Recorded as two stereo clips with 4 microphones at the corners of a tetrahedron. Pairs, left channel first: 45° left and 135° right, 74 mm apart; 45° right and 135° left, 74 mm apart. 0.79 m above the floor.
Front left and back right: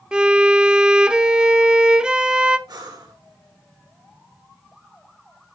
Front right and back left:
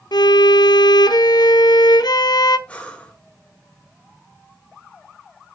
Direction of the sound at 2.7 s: 115° right.